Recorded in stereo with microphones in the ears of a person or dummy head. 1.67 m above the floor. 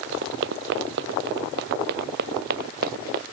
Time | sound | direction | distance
0.1 | running footsteps | 65° right (ahead or behind) | ?